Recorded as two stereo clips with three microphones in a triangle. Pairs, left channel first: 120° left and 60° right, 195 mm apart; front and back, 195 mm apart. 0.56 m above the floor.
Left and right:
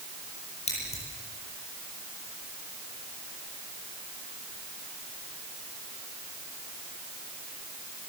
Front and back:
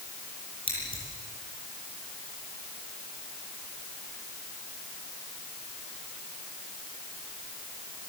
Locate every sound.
0.7 s scissors: 65° left, 9 m